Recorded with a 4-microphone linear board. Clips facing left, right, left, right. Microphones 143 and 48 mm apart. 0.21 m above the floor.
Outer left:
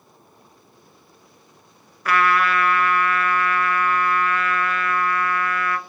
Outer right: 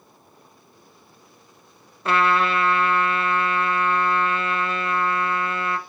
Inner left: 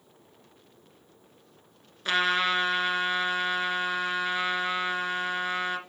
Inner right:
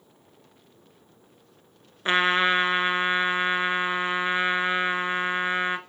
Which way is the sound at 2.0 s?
25° right (ahead or behind).